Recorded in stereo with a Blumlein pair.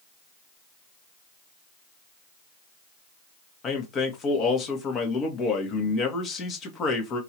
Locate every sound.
3.6 s a man speaking: 30° left, 1.5 m